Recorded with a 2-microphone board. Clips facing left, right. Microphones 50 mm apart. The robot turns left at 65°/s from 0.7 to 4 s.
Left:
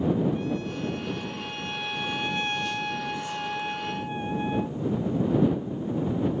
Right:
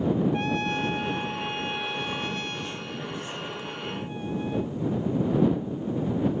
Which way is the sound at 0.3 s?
105° right.